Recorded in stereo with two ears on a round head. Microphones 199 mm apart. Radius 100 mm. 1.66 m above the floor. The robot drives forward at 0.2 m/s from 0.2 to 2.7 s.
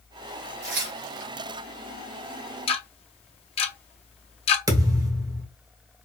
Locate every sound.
0.6 s tearing paper: 60° right (ahead or behind), 3 m; by 1.3 s 55° right (ahead or behind), 3 m
2.7 s ticking: 30° left (ahead or behind), 0.6 m
4.7 s a thud: 15° right (ahead or behind), 0.9 m